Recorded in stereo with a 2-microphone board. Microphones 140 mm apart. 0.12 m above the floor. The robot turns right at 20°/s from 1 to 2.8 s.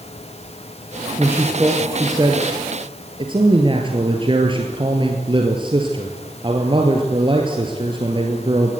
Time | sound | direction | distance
1.2 | a man speaking | 170° right | 2.0 m